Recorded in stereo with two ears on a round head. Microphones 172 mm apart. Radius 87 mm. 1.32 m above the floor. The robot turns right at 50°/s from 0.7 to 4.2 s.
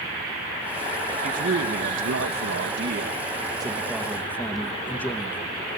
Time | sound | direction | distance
1.2 | a man speaking | 140° right | 2 m